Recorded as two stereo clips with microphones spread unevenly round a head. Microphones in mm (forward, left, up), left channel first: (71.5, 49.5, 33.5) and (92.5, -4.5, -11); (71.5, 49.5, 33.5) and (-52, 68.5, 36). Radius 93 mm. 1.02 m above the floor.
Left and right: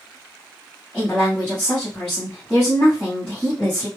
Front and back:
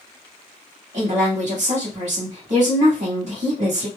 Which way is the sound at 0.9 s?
155° right.